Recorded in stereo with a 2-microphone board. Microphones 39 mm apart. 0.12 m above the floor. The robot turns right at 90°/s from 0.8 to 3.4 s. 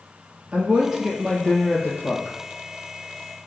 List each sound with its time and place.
0.5 s a woman speaking: 35° right, 2.5 m; by 2.4 s 105° left, 2.5 m